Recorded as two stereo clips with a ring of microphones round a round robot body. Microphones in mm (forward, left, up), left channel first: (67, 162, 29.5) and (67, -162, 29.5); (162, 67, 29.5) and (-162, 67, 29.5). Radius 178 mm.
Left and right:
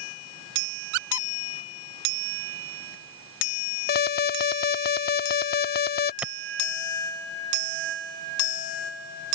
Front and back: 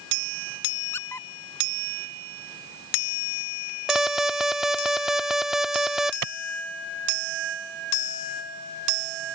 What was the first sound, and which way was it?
A squeak, 85° right.